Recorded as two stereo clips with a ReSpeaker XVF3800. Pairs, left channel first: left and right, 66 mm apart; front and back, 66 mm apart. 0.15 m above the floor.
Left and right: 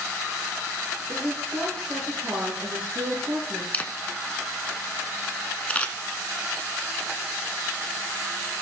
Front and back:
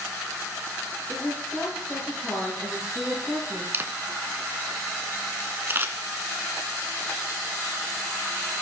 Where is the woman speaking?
75° right, 4 m.